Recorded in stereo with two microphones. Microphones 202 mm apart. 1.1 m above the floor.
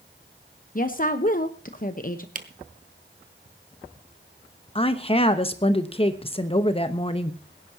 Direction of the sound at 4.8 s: 30° left (ahead or behind).